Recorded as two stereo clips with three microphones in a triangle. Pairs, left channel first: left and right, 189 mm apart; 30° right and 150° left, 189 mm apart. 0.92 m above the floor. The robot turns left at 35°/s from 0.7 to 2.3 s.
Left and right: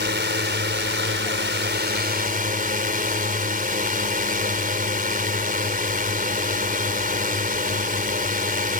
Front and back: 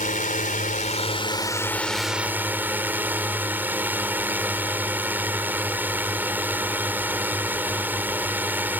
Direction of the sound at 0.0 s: 75° right.